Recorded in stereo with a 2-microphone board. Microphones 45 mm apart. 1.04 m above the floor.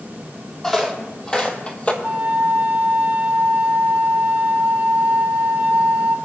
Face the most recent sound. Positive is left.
turn(degrees=-40)  # may be behind; listen again after turning